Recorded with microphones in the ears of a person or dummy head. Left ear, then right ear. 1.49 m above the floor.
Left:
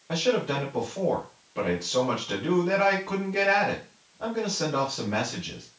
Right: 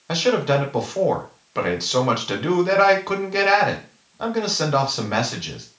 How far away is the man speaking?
About 1.1 m.